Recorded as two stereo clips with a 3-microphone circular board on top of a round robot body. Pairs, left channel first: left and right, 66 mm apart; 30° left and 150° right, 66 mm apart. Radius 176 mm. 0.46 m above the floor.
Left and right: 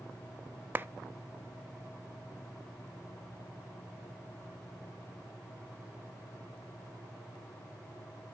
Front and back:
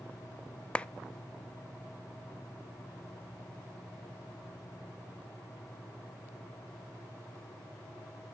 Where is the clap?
40° right, 0.6 m.